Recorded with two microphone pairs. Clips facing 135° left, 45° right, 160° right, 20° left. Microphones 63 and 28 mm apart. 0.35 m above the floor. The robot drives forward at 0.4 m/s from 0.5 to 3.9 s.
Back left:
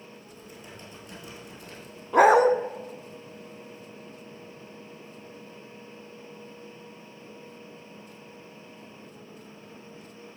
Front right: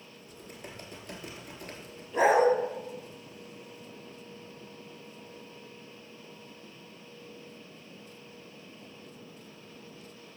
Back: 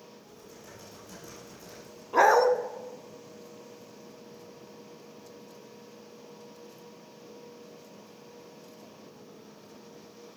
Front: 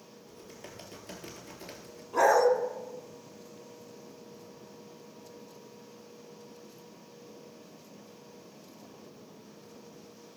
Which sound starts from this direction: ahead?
Typing on a keyboard, at 0.3 s.